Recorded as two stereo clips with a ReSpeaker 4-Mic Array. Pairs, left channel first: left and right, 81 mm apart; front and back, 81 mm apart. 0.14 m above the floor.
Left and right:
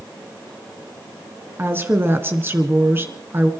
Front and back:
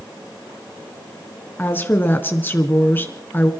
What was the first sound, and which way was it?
A woman speaking, 50° right.